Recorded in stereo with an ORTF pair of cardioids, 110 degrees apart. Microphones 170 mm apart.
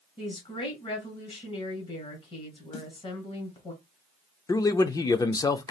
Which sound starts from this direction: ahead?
A man speaking, at 4.5 s.